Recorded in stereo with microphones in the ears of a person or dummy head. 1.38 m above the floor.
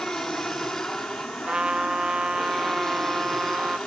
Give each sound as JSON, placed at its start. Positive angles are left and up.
{"t": 0.0, "sound": "an aircraft", "side_deg": 5}
{"t": 1.5, "sound": "a trumpet", "side_deg": -5}